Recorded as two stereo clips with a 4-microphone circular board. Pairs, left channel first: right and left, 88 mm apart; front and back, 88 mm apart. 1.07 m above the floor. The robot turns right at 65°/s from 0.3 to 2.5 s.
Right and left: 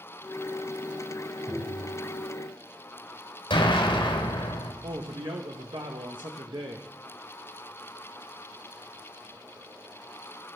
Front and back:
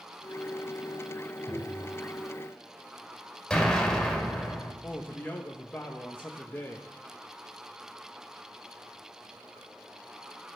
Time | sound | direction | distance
1.5 | tapping | 25° left | 6 m
3.5 | an explosion | 85° right | 3.5 m
4.8 | a man speaking | 70° left | 0.8 m